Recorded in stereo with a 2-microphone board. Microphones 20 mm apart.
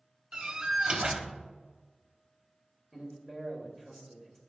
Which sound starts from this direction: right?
A door slam, at 0.3 s.